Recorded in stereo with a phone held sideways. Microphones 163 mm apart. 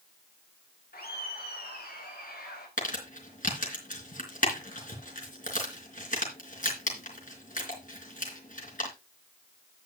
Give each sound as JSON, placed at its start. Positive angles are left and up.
{"t": 0.9, "sound": "laughter", "side_deg": 70, "distance_m": 2.0}
{"t": 2.8, "sound": "crumpling", "side_deg": 55, "distance_m": 3.5}